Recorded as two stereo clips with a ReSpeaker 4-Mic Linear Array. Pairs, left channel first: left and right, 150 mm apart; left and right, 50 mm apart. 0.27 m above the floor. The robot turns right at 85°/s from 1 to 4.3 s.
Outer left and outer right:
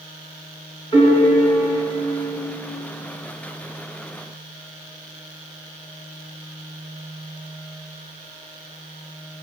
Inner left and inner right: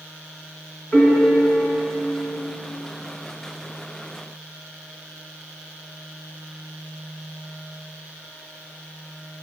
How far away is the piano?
About 1.8 m.